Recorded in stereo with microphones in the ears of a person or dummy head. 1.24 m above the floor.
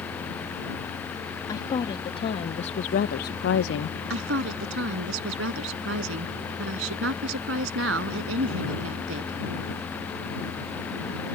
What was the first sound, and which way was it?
A woman speaking, 20° left (ahead or behind).